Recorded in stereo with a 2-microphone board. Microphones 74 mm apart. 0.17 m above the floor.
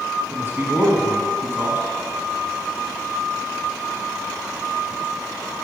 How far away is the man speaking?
About 1.1 m.